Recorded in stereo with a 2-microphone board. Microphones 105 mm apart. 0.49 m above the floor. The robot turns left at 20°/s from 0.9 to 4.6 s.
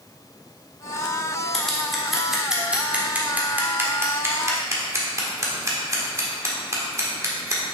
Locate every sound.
1.5 s scissors: 5° left (ahead or behind), 1.2 m; by 7.6 s 30° right (ahead or behind), 1.2 m